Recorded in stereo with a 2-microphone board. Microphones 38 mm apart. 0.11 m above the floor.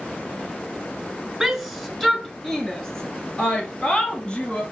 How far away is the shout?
About 1.2 m.